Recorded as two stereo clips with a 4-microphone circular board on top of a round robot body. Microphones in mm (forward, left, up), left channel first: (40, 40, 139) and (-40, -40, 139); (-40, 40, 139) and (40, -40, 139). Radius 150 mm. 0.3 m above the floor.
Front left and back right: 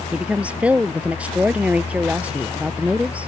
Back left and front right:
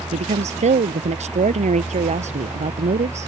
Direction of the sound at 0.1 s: 55° right.